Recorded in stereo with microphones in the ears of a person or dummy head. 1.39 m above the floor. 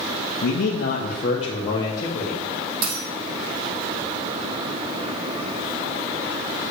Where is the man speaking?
70° left (ahead or behind), 1.2 m; by 2.4 s 10° left (ahead or behind), 1.7 m.